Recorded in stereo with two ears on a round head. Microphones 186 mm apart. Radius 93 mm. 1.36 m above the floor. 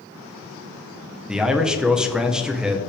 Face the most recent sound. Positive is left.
turn(degrees=-5)  # may be behind; listen again after turning